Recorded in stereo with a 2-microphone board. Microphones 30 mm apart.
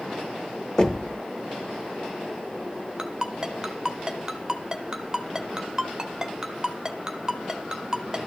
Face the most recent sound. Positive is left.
turn(degrees=-20)  # may be behind; listen again after turning